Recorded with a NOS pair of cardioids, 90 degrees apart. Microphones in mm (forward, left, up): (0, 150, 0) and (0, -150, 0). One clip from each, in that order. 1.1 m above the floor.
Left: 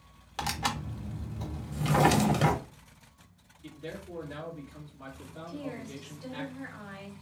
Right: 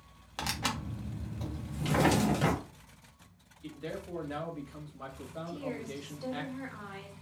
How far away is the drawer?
About 0.9 m.